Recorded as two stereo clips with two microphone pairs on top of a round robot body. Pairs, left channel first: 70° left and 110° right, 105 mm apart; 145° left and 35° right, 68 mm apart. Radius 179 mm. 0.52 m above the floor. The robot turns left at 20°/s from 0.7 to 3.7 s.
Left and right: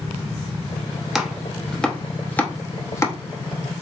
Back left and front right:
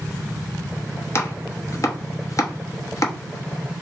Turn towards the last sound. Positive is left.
turn(degrees=120)